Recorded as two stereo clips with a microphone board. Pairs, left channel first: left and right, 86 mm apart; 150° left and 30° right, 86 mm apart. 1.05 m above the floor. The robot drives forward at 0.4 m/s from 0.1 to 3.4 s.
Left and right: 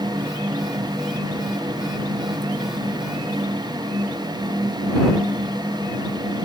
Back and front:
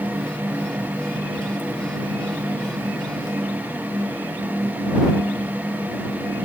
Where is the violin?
I don't hear a violin.